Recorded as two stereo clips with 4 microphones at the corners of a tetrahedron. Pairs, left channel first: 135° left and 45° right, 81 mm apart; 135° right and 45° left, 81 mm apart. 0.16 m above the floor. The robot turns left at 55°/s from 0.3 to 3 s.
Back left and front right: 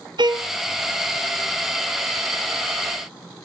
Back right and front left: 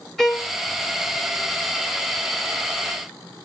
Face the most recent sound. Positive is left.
turn(degrees=165)